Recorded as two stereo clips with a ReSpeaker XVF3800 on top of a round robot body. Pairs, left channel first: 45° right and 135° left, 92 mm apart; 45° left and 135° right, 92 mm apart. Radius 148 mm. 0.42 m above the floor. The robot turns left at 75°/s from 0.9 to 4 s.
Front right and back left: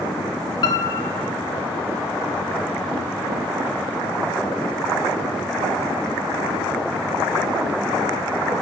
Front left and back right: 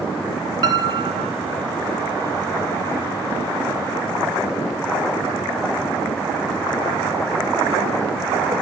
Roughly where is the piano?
Right.